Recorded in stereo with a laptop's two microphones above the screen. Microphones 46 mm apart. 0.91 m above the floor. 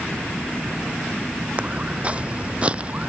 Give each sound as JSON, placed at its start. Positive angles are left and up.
{"t": 1.6, "sound": "footsteps", "side_deg": -25}